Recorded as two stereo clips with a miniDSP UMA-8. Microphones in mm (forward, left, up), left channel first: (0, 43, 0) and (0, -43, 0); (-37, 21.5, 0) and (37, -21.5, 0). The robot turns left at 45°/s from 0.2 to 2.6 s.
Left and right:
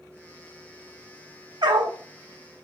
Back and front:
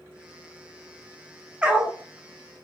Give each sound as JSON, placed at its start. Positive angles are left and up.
{"t": 1.6, "sound": "a dog barking", "azimuth_deg": -105, "distance_m": 0.7}